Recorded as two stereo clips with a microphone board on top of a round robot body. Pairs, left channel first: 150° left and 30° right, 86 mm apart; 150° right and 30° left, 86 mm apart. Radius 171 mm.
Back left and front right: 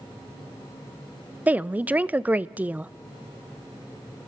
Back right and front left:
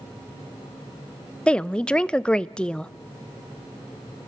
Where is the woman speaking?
80° right, 0.7 m.